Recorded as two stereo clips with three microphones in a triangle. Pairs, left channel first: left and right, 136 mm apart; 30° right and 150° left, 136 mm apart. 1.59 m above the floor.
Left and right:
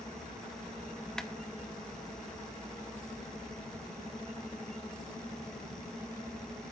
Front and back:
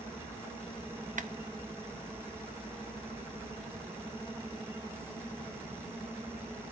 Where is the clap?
175° left, 0.5 m.